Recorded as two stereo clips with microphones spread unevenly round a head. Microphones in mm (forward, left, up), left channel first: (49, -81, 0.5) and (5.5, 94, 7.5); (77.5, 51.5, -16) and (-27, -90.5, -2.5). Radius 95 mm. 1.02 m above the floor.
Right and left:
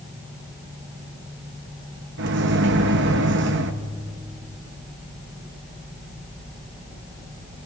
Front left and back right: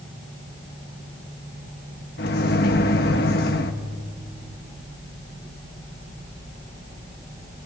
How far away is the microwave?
About 1.0 m.